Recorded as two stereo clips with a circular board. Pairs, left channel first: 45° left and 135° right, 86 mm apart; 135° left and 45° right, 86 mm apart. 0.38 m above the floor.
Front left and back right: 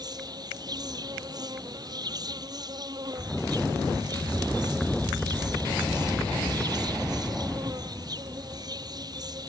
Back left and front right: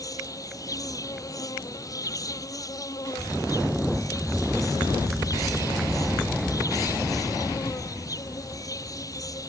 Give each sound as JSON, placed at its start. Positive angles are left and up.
{"t": 0.0, "sound": "an insect", "azimuth_deg": -175}